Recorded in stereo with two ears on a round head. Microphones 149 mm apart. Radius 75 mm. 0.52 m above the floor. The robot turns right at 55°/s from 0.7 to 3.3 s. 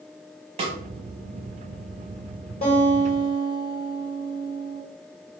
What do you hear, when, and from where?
0.6 s a snare drum: 40° right (ahead or behind), 0.7 m
2.6 s a guitar: 80° left, 1.7 m; by 4.8 s 120° left, 1.7 m